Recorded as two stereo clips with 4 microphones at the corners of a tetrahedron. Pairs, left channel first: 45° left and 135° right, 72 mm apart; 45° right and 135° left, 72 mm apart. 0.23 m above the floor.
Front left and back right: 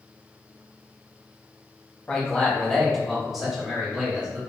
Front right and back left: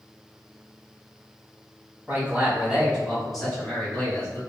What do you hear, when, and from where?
2.1 s a man speaking: 110° left, 1.2 m; by 4.4 s 70° right, 1.2 m